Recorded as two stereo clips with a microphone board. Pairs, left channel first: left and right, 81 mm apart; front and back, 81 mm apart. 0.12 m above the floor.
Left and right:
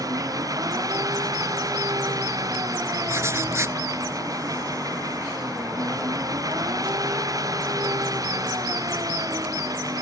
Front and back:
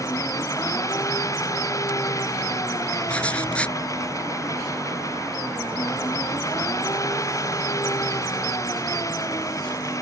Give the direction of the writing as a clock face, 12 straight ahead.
2 o'clock.